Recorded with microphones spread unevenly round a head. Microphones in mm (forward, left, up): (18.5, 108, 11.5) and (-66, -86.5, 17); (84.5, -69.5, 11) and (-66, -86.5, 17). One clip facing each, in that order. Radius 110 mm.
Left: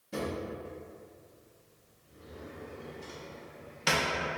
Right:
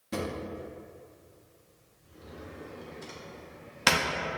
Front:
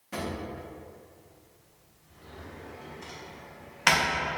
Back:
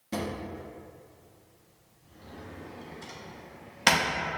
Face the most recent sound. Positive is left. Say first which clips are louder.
# right 1 dB, back 1 dB
turn(degrees=-120)